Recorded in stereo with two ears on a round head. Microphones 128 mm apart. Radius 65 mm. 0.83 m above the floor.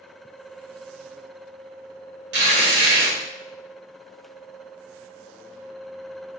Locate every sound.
2.3 s tearing paper: 80° right, 2.5 m